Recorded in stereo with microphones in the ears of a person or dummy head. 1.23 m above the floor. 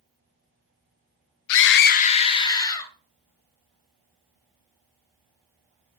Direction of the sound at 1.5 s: 70° left (ahead or behind).